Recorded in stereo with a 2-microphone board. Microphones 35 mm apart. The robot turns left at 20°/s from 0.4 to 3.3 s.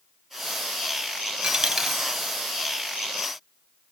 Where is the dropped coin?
25° right (ahead or behind), 0.8 m; by 2.0 s 10° right (ahead or behind), 0.8 m.